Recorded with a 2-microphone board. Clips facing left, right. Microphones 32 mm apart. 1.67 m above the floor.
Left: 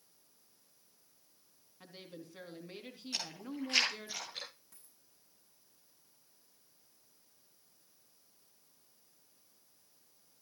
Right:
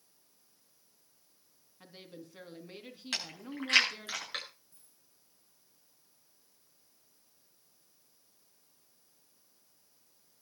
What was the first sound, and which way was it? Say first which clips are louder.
A woman speaking: even; 5° right (ahead or behind).